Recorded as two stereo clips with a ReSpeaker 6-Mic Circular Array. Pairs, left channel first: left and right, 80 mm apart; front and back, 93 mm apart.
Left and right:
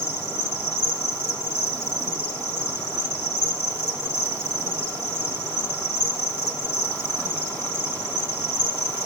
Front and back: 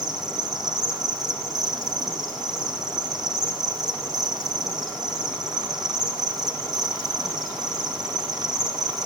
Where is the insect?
140° right, 4.5 m.